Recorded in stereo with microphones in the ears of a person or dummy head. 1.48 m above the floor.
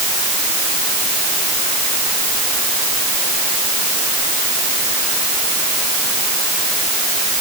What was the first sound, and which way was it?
Only background noise.